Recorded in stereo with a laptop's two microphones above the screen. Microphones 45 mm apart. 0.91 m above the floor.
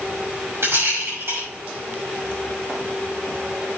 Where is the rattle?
60° right (ahead or behind), 5.5 m.